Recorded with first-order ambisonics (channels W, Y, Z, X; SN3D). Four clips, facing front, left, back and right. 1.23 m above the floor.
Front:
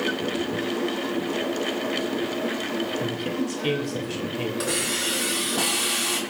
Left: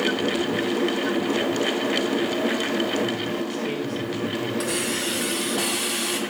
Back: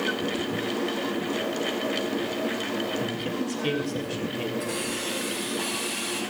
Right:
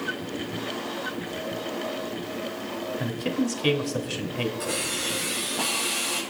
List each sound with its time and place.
3.0 s a man speaking: 80° right, 2.5 m
4.6 s a hiss: 30° left, 4.5 m